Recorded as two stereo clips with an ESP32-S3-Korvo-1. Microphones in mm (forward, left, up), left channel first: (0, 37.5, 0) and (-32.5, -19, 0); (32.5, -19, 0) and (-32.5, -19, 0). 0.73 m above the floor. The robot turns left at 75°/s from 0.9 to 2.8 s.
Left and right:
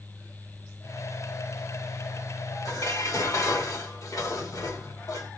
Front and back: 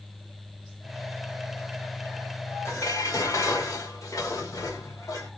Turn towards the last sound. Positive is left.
turn(degrees=30)